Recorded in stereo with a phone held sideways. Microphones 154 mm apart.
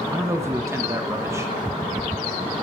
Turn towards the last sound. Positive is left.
turn(degrees=-15)  # may be behind; listen again after turning